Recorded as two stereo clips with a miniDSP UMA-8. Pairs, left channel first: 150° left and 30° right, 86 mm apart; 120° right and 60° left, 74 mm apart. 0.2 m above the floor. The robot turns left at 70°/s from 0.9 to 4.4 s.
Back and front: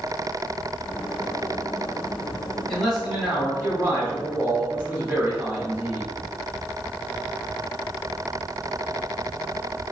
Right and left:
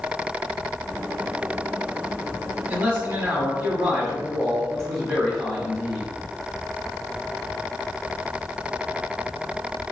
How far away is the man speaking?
About 1.4 m.